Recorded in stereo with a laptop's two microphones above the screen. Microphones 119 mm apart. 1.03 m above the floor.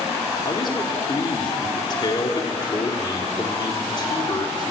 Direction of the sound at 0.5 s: 40° left (ahead or behind).